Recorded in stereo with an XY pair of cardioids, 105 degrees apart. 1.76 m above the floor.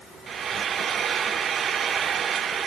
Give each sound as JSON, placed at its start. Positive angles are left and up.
{"t": 0.3, "sound": "frying", "azimuth_deg": -50, "distance_m": 0.7}